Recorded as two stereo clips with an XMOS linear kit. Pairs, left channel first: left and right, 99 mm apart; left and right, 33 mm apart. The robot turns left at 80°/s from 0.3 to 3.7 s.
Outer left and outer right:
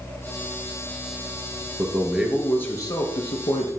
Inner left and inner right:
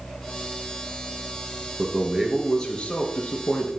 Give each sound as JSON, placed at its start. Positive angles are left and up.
{"t": 1.8, "sound": "a man speaking", "azimuth_deg": -135, "distance_m": 3.0}